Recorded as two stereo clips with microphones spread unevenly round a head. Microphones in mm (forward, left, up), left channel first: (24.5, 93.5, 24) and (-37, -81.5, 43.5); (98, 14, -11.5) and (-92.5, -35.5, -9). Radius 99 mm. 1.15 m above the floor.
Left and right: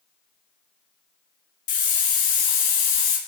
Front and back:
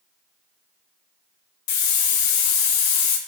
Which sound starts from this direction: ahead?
A hiss, at 1.7 s.